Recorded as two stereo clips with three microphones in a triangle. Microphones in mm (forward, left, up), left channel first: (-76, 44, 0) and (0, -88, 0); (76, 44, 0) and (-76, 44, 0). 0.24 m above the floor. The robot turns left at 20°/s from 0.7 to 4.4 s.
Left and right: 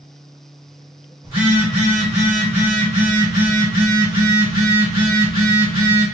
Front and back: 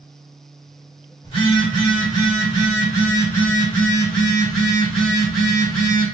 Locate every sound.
1.2 s a phone buzzing: 30° right, 1.9 m; by 6.0 s 95° right, 1.9 m